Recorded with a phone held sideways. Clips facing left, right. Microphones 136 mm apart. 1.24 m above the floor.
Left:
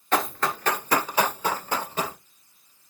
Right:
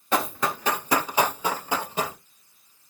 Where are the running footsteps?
10° right (ahead or behind), 1.2 m.